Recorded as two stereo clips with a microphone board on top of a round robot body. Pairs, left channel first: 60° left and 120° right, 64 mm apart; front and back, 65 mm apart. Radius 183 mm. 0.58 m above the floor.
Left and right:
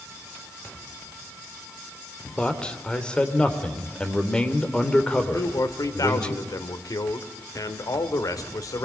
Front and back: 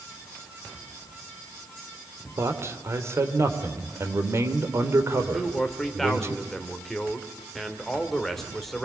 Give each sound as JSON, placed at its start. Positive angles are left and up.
{"t": 2.4, "sound": "a man speaking", "azimuth_deg": 135, "distance_m": 3.0}
{"t": 5.3, "sound": "a man speaking", "azimuth_deg": 85, "distance_m": 2.5}